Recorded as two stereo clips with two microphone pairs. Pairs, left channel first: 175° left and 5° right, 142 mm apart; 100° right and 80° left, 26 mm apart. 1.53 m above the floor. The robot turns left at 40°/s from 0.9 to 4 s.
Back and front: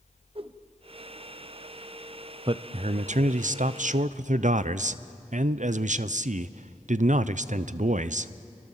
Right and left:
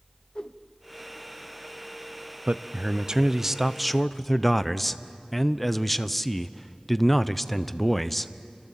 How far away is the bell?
I don't hear a bell.